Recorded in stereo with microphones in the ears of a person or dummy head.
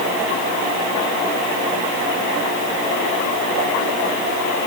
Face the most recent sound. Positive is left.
No sound to turn to.